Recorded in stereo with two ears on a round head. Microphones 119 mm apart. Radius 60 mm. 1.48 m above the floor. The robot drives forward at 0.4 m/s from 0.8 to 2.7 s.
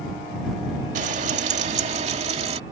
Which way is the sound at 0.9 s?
60° right (ahead or behind).